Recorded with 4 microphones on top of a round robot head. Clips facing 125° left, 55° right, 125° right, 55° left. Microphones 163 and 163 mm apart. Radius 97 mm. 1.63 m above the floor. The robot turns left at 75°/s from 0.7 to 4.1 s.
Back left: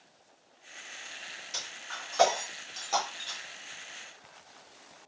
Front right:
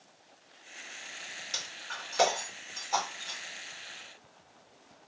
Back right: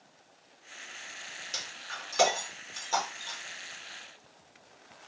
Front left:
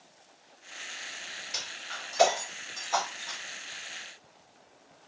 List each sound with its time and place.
1.5 s breaking glass: 75° right, 1.7 m; by 3.4 s 145° left, 1.7 m